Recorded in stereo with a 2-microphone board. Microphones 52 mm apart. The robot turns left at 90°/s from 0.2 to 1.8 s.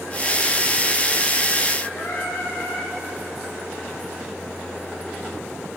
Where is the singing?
60° left (ahead or behind), 3.5 m.